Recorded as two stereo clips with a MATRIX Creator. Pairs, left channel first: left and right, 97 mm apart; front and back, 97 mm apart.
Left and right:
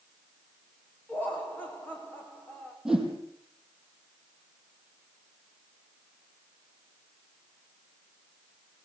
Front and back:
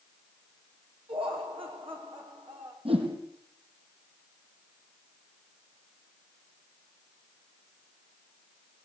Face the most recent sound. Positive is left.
turn(degrees=-175)